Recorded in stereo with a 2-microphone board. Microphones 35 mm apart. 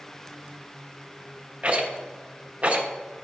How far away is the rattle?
About 1.1 m.